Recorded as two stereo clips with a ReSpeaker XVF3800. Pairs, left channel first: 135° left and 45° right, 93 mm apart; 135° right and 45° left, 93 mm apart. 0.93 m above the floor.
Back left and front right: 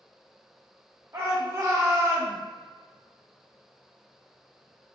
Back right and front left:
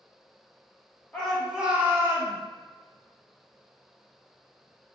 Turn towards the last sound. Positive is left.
turn(degrees=5)